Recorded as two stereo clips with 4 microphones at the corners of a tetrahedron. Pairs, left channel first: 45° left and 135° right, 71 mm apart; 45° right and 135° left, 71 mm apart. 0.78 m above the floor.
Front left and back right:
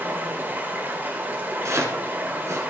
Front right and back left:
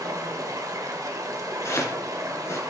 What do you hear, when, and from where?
0.0 s running water: 165° left, 1.6 m
1.6 s chopping: 90° right, 2.5 m